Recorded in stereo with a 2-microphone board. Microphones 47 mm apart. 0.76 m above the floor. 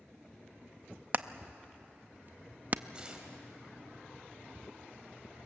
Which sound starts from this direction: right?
Hammering, at 1.1 s.